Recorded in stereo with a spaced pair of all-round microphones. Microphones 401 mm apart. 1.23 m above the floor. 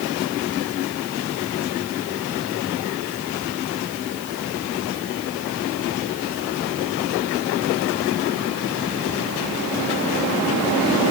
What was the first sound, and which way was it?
Only background noise.